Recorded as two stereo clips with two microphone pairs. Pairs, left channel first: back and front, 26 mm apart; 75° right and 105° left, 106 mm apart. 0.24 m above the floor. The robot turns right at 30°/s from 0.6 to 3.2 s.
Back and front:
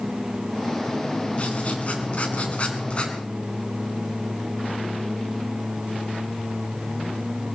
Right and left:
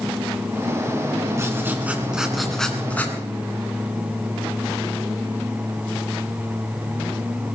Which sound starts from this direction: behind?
Writing, at 1.4 s.